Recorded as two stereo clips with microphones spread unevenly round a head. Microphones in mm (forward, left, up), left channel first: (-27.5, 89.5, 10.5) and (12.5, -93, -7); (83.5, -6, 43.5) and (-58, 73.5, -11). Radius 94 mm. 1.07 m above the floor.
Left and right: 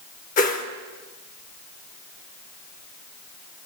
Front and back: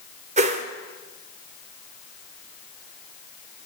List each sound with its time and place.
0.4 s a whoosh: 95° left, 0.9 m